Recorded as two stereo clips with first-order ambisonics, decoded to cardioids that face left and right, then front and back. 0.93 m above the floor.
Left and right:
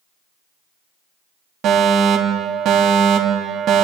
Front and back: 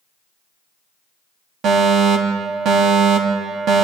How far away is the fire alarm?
About 3 m.